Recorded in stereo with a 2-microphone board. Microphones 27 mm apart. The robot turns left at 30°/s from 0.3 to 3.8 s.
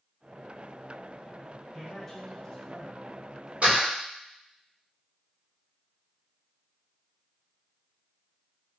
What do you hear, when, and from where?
1.7 s a man speaking: 15° left (ahead or behind), 1.0 m
3.6 s a door slam: 45° right (ahead or behind), 2 m; by 3.9 s 40° right (ahead or behind), 2 m